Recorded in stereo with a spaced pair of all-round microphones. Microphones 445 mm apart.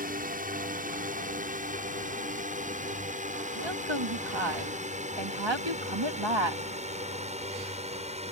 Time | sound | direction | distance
0.0 | a drone | 20° right (ahead or behind) | ?
3.5 | a woman speaking | 75° right (ahead or behind) | ?